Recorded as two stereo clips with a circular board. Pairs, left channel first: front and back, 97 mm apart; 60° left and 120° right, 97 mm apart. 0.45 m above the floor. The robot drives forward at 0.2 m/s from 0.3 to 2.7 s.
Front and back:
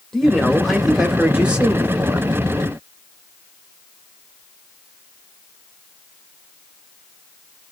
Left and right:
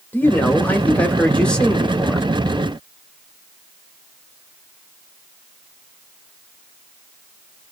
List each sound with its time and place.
0.1 s a man speaking: 80° left, 0.9 m; by 2.3 s 135° left, 1.0 m